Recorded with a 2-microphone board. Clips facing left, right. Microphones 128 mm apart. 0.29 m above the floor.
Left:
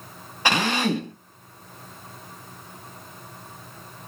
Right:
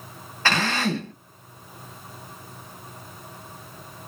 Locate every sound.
0.5 s a drill: 15° left (ahead or behind), 0.7 m